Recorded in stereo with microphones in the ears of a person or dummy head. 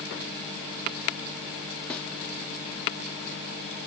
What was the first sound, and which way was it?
A snare drum, 5° left (ahead or behind).